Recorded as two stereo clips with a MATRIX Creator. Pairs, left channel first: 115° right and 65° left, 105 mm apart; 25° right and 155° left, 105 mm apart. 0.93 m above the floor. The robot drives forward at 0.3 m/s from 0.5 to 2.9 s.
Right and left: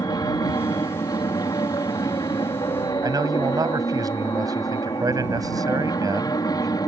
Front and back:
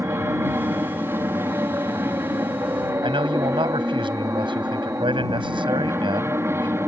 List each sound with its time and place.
0.0 s an aircraft: 145° right
3.0 s a man speaking: 120° left